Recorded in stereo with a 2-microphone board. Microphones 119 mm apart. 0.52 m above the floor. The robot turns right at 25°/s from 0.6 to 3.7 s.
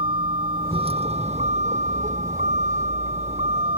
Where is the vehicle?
135° right; by 3.8 s 55° right.